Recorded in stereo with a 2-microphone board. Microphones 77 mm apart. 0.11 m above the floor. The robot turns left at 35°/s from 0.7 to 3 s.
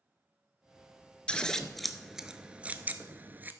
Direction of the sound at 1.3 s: 15° left (ahead or behind).